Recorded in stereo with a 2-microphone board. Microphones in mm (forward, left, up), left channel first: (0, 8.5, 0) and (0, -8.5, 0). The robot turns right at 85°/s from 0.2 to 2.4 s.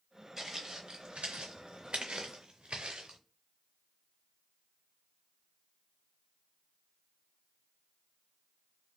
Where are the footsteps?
20° right (ahead or behind), 1.1 m; by 3.2 s 85° right, 0.8 m.